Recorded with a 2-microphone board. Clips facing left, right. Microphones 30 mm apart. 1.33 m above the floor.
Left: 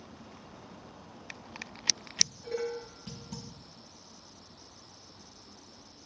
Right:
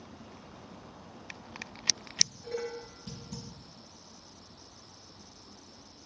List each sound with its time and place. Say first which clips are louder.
2.2 s dishes clattering: left 2 dB; 50° left (ahead or behind), 4.5 m